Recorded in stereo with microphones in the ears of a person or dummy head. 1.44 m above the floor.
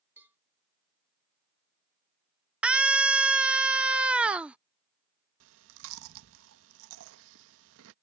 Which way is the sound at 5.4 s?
80° right.